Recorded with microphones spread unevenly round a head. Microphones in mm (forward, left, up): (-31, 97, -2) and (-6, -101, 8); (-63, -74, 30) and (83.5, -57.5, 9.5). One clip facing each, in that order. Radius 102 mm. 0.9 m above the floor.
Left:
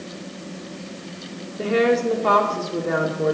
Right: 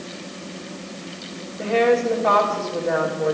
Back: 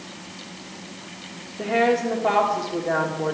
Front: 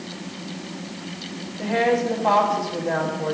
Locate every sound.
1.6 s a woman speaking: 130° left, 2.5 m